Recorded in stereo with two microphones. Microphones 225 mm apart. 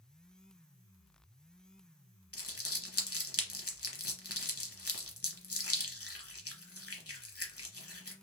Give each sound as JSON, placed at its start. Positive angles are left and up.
{"t": 2.3, "sound": "crumpling", "side_deg": 85, "distance_m": 0.7}